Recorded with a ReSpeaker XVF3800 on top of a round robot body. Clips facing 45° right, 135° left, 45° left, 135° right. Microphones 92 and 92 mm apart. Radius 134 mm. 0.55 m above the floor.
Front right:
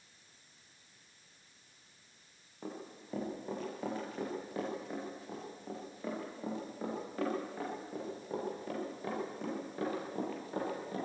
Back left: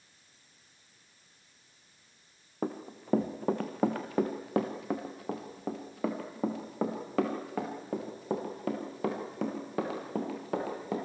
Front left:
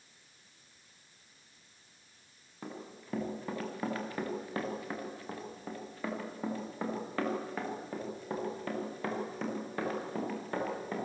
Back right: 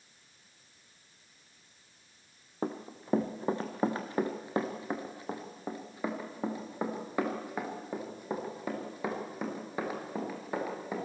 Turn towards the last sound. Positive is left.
turn(degrees=145)